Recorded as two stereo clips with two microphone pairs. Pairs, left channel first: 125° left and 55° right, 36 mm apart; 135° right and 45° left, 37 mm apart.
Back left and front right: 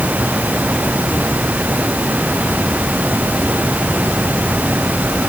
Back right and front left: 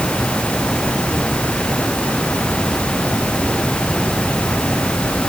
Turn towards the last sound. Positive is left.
No sound to turn to.